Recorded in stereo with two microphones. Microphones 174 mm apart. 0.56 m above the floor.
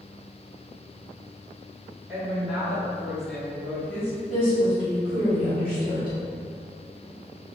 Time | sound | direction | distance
2.1 | a woman speaking | 5° right (ahead or behind) | 1.5 m
4.3 | a woman speaking | 10° right (ahead or behind) | 0.9 m